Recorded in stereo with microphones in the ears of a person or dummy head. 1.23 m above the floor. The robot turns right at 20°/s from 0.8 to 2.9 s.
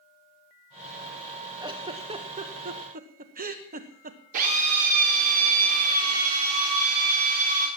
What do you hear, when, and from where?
1.6 s a giggle: 20° right (ahead or behind), 0.9 m; by 4.2 s 45° right (ahead or behind), 0.9 m
4.3 s a drill: 45° right (ahead or behind), 3.5 m